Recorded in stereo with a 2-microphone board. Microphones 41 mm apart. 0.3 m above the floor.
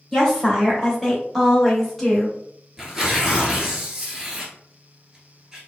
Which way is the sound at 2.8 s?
15° right (ahead or behind).